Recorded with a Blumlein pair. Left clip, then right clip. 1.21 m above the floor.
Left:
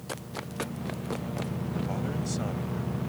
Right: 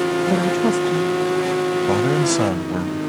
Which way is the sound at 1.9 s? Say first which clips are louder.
Right 16 dB; 55° right.